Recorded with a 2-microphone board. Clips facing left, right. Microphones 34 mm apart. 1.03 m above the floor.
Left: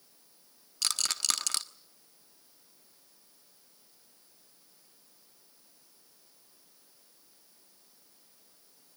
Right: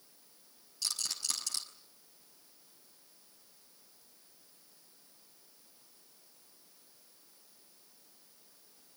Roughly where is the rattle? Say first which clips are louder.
Left 7 dB; left.